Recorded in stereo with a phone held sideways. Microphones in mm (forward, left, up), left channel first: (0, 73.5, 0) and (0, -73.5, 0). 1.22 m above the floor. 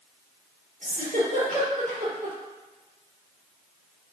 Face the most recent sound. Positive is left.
turn(degrees=-70)  # may be behind; listen again after turning